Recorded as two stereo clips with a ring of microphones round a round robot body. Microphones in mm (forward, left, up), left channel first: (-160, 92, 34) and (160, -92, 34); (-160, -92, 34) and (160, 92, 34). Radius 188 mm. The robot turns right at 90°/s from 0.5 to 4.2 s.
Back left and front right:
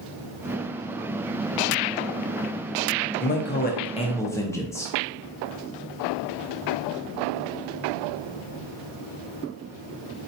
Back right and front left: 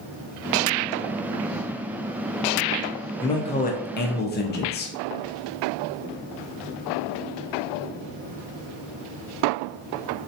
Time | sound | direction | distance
3.2 | a man speaking | 135° left | 0.5 m